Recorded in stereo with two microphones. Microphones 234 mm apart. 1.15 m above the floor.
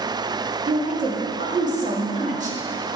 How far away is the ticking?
No ticking in this recording.